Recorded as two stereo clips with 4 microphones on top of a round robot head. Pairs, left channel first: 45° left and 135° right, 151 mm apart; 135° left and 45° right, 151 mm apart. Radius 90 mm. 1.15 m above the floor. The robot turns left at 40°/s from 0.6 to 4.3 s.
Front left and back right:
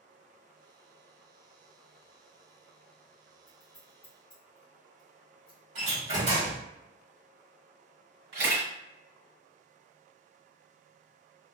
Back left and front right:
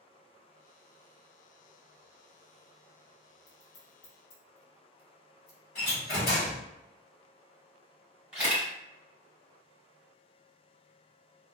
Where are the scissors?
140° left, 0.9 m; by 5.6 s 105° left, 0.9 m.